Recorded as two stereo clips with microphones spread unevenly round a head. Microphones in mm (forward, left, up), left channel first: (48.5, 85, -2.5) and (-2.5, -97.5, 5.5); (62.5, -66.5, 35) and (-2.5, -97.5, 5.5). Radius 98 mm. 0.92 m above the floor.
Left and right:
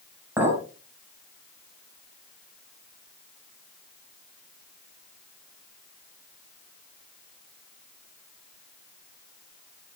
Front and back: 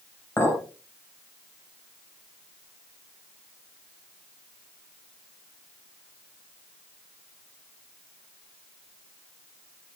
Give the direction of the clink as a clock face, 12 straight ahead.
1 o'clock.